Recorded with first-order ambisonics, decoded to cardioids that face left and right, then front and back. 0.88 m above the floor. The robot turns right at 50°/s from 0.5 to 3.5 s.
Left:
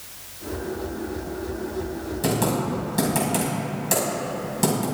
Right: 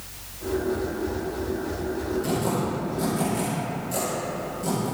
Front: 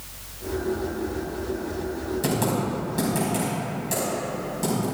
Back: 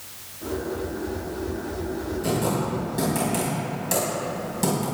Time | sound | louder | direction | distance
2.2 | typing on a keyboard | left 7 dB, even | 45° left | 4.5 m